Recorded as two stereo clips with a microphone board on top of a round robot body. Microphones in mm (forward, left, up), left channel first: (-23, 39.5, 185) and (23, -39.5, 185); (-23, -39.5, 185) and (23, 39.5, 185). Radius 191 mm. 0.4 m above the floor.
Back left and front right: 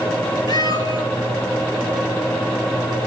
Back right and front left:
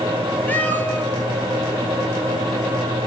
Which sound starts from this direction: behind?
A cat meowing, at 0.5 s.